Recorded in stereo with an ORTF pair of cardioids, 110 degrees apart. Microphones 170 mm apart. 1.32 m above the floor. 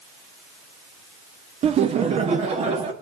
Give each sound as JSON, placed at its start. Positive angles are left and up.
{"t": 1.6, "sound": "laughter", "azimuth_deg": -40, "distance_m": 0.5}